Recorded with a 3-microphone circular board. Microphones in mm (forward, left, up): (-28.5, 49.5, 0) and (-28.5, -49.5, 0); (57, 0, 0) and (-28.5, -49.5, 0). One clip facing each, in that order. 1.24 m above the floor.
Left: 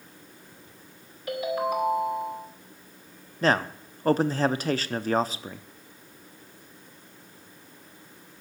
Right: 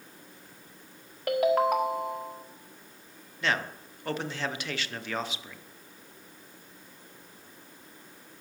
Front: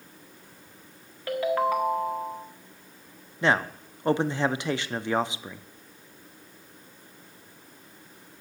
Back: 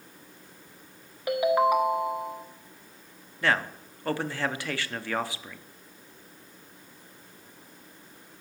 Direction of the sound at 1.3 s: 75° right.